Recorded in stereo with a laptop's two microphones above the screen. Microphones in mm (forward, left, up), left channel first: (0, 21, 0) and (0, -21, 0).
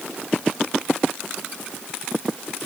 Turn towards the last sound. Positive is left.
No sound to turn to.